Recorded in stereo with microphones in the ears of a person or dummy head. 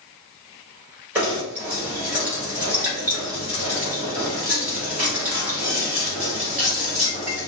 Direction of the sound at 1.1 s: 10° right (ahead or behind).